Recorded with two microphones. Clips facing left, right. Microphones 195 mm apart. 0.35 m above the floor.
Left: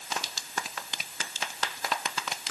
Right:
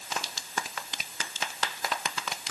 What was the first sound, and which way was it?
Only background noise.